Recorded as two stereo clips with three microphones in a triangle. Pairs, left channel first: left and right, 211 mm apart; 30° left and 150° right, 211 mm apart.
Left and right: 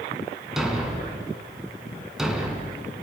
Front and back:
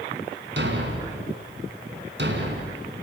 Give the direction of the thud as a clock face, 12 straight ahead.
6 o'clock.